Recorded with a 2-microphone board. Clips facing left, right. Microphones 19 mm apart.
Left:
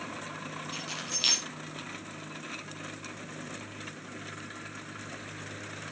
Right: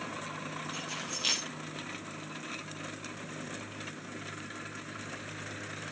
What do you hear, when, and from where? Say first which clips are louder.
0.7 s keys jangling: left 5 dB; 55° left (ahead or behind), 7 m